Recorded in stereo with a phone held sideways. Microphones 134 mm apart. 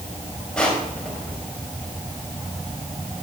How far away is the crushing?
About 4.5 m.